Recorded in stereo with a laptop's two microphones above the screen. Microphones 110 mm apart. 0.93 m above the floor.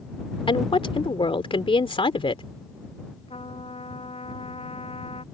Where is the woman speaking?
60° left (ahead or behind).